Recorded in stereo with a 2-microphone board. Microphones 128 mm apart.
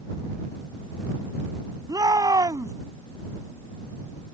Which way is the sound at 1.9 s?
30° right (ahead or behind).